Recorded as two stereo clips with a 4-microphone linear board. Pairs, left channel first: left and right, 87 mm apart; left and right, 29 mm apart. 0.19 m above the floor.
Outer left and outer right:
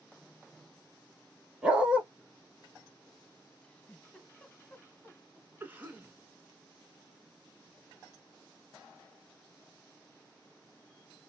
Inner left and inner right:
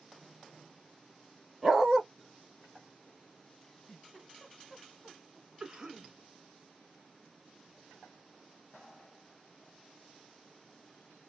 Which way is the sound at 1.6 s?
15° right (ahead or behind).